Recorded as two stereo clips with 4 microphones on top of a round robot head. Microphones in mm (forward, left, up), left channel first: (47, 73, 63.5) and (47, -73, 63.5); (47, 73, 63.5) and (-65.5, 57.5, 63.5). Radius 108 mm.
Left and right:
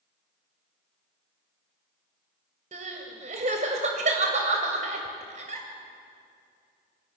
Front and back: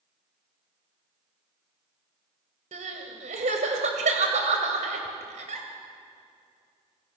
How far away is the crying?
About 2.5 m.